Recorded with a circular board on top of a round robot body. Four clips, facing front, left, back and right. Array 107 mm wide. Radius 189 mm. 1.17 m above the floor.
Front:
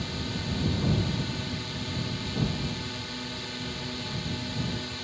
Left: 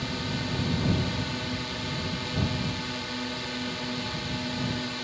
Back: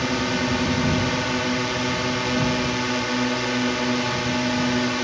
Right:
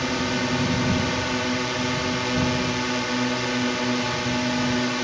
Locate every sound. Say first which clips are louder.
0.0 s a drone: right 8 dB, back 12 dB; 145° right